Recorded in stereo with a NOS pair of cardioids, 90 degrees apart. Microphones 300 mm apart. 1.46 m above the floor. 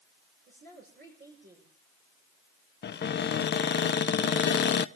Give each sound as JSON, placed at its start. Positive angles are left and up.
{"t": 0.5, "sound": "a woman speaking", "azimuth_deg": -35, "distance_m": 7.0}
{"t": 2.8, "sound": "a cupboard door", "azimuth_deg": 35, "distance_m": 0.7}